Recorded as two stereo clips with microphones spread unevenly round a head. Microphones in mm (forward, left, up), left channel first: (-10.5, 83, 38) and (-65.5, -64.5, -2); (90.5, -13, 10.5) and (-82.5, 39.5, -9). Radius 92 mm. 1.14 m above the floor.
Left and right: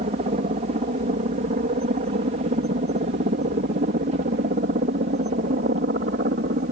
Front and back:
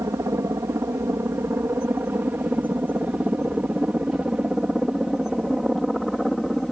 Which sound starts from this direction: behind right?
A helicopter, at 0.0 s.